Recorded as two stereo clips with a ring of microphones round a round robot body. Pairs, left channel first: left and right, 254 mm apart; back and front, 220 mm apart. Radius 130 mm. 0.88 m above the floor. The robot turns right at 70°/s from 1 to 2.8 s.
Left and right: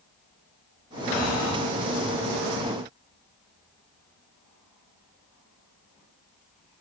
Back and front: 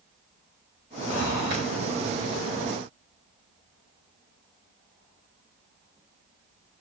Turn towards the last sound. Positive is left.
turn(degrees=-75)